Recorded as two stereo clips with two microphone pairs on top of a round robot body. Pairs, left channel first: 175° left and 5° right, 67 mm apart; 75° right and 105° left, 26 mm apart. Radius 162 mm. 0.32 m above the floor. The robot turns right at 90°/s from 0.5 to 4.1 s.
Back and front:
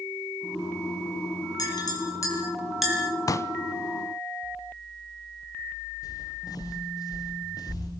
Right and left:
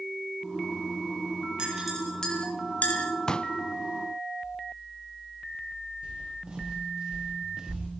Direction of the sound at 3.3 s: 150° right.